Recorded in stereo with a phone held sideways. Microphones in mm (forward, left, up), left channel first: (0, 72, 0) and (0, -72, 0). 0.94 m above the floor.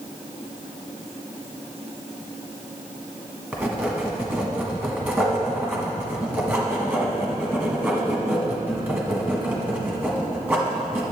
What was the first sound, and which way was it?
Writing, 15° right (ahead or behind).